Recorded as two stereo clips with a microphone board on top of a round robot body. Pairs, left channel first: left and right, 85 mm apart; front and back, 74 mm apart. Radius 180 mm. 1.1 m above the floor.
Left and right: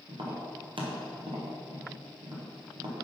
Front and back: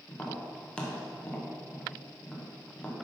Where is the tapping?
75° right, 1.5 m.